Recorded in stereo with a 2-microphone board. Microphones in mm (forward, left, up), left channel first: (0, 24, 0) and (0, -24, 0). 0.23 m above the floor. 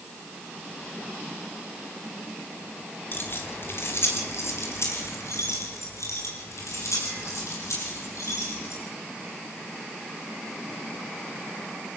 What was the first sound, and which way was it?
Keys jangling, 45° left (ahead or behind).